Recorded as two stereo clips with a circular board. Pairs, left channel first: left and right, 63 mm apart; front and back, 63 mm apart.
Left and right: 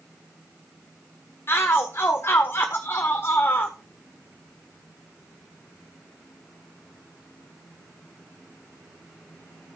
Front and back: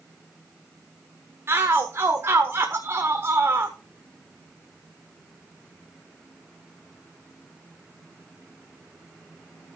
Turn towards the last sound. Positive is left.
turn(degrees=135)